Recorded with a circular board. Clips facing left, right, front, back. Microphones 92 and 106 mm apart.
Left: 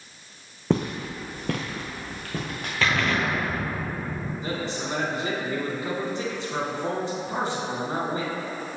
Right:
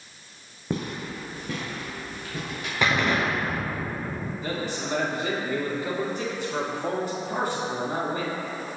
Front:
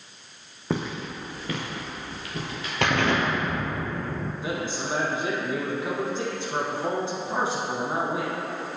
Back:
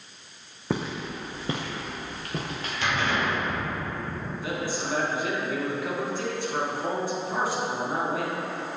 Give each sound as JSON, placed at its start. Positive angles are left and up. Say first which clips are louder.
{"t": 0.7, "sound": "footsteps", "louder": "left 5 dB, even", "azimuth_deg": 90, "distance_m": 0.8}
{"t": 2.8, "sound": "an explosion", "louder": "right 1 dB, front 4 dB", "azimuth_deg": -15, "distance_m": 0.9}
{"t": 4.4, "sound": "a man speaking", "louder": "even, back 1 dB", "azimuth_deg": 40, "distance_m": 1.6}